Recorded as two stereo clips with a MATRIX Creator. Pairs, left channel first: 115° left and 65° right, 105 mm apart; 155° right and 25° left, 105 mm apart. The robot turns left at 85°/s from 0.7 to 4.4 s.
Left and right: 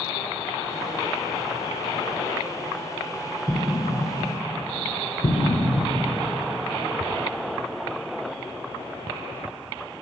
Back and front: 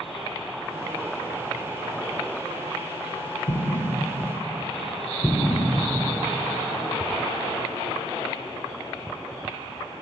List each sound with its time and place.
3.5 s an explosion: 145° right, 0.6 m; by 6.0 s 140° left, 0.6 m